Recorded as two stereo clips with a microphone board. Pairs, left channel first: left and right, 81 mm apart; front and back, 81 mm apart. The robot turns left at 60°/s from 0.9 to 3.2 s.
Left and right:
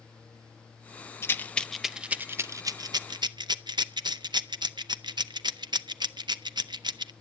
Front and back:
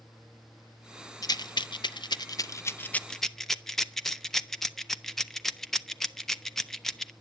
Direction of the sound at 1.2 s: 35° left.